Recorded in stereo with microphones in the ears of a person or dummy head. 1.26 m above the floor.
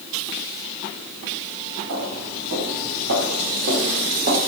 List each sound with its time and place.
1.9 s footsteps: 75° right (ahead or behind), 4.5 m; by 4.4 s 50° right (ahead or behind), 3.5 m